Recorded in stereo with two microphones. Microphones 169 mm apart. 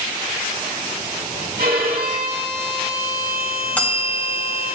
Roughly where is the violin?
Right.